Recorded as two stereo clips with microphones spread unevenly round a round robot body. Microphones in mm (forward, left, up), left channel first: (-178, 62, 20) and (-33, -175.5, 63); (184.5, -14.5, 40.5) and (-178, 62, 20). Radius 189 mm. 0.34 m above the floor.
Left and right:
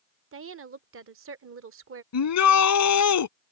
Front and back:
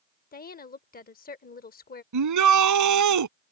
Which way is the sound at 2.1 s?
130° left.